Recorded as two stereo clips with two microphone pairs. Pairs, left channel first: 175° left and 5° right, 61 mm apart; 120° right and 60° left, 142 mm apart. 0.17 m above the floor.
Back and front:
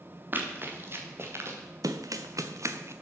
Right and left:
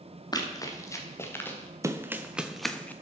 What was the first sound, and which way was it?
Running footsteps, 60° right.